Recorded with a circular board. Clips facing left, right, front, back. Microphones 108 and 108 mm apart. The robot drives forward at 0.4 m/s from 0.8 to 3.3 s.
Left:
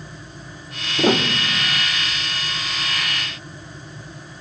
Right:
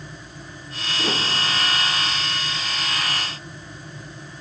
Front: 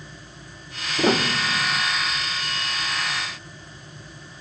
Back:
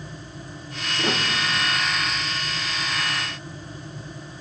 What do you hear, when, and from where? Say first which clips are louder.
1.0 s a piano: left 8 dB, front 5 dB; 55° left, 1.1 m; by 1.8 s 75° left, 0.9 m